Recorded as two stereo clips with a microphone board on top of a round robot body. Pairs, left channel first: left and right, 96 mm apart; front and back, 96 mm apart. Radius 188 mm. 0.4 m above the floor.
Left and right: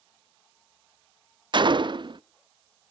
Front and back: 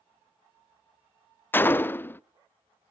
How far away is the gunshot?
About 0.5 m.